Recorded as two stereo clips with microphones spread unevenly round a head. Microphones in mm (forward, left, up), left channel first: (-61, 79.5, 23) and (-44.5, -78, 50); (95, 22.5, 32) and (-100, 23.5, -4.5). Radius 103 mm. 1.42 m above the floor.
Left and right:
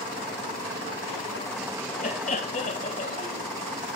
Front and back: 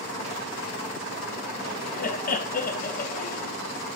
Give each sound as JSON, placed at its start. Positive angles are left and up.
{"t": 2.0, "sound": "laughter", "azimuth_deg": 45, "distance_m": 1.9}